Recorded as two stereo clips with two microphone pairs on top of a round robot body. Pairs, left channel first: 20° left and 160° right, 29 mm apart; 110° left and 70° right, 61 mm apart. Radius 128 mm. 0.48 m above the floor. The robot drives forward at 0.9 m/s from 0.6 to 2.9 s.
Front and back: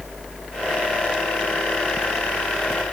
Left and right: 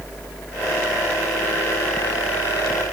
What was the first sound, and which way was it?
Only background noise.